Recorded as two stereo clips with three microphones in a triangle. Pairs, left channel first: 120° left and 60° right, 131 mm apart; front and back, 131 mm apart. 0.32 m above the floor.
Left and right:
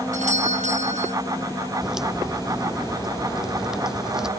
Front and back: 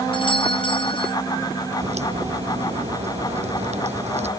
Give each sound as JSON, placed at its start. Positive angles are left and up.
{"t": 0.1, "sound": "a doorbell", "azimuth_deg": -45}
{"t": 1.8, "sound": "a crack", "azimuth_deg": -145}